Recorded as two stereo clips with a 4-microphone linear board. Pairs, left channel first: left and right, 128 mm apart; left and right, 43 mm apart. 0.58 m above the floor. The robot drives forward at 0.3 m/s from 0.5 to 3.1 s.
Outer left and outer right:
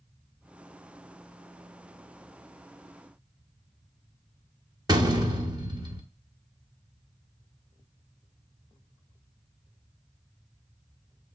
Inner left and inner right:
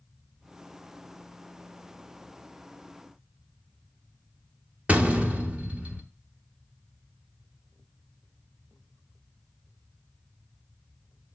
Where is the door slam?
35° right (ahead or behind), 1.3 m.